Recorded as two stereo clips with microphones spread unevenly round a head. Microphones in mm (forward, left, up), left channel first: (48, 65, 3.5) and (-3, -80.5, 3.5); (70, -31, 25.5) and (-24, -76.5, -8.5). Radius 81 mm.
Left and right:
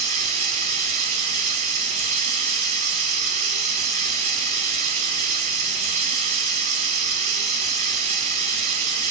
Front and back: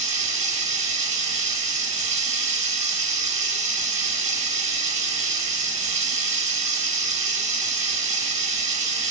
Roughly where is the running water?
Behind right.